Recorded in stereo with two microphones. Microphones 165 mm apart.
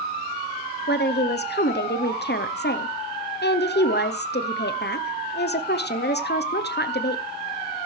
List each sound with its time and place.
0.9 s a woman speaking: 70° left (ahead or behind), 0.8 m